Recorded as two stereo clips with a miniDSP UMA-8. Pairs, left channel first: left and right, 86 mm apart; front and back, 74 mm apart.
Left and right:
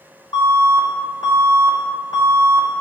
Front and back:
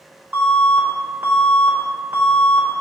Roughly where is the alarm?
Behind left.